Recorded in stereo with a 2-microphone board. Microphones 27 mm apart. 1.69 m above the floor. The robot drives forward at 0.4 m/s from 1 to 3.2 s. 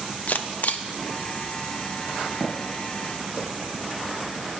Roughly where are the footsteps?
Right.